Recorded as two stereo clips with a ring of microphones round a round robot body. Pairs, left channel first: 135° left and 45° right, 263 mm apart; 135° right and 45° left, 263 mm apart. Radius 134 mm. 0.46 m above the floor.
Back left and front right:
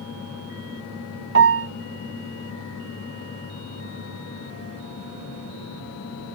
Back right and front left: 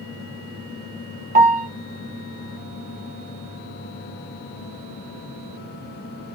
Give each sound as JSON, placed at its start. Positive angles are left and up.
{"t": 1.4, "sound": "a piano", "azimuth_deg": -10, "distance_m": 0.5}